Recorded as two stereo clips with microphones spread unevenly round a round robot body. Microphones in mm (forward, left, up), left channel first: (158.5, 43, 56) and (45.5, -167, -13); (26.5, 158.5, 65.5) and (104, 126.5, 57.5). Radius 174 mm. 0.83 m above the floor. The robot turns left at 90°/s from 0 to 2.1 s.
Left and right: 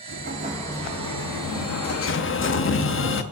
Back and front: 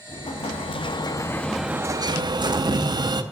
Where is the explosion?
160° right, 0.7 m; by 3.2 s 20° left, 0.7 m.